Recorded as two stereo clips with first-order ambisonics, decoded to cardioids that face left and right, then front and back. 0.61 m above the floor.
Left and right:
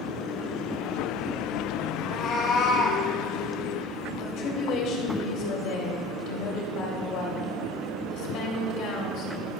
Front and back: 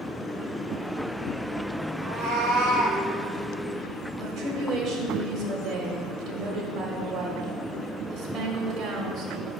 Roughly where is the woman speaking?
Behind left.